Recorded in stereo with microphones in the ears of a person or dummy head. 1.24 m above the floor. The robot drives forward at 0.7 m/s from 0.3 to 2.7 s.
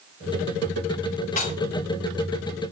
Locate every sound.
1.4 s dishes clattering: 45° left (ahead or behind), 2.5 m